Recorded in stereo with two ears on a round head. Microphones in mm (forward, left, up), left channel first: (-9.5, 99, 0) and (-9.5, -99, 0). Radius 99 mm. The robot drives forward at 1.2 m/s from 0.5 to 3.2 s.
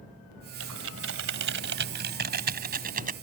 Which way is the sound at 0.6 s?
70° right (ahead or behind).